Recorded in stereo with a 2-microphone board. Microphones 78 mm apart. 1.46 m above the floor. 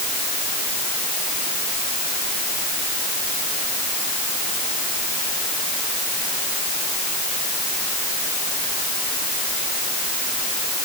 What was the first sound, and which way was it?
Only background noise.